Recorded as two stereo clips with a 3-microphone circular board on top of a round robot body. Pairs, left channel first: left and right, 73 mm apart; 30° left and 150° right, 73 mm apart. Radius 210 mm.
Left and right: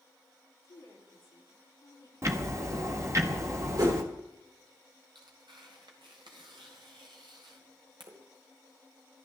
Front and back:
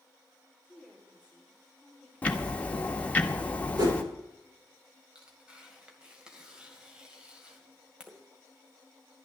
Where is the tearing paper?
75° right, 2.5 m.